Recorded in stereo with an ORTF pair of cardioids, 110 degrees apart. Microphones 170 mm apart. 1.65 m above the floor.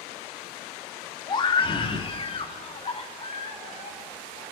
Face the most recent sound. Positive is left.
turn(degrees=40)